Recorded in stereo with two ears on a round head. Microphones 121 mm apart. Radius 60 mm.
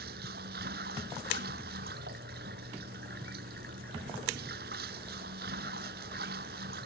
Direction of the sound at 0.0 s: 85° right.